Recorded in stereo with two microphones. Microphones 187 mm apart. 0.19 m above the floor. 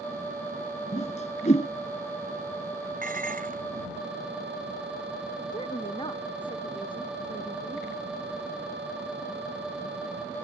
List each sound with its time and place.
0.9 s a whoosh: 40° left (ahead or behind)
3.0 s dishes clattering: 50° right (ahead or behind)
5.5 s a woman speaking: 25° left (ahead or behind)